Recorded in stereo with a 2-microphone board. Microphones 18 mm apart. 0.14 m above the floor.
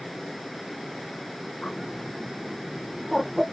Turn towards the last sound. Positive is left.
turn(degrees=15)  # may be behind; listen again after turning